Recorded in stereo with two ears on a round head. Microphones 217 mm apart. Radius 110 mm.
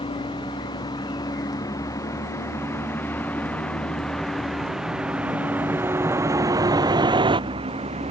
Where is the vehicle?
20° left (ahead or behind); by 8.1 s 25° right (ahead or behind).